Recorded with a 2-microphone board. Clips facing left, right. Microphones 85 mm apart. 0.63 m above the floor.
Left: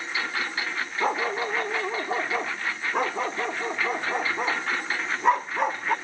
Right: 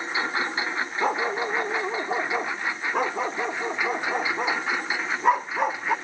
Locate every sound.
0.0 s a lawn mower: 25° right (ahead or behind); by 6.0 s 10° right (ahead or behind)
1.0 s a dog barking: centre (ahead or behind)